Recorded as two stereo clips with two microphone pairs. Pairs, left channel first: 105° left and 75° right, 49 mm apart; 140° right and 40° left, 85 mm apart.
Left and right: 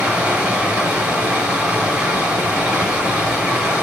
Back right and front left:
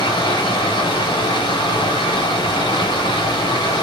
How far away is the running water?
About 1.9 m.